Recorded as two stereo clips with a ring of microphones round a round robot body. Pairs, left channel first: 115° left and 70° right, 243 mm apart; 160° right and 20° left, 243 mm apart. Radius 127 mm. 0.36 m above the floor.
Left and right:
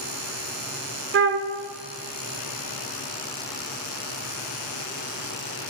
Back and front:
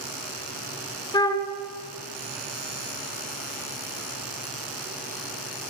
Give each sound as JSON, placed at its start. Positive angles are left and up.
{"t": 1.1, "sound": "a flute", "azimuth_deg": -85, "distance_m": 0.8}